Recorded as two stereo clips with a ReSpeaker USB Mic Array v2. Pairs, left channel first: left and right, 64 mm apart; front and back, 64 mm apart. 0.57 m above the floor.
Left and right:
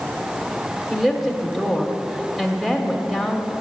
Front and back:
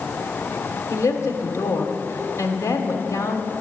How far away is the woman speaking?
About 1.4 m.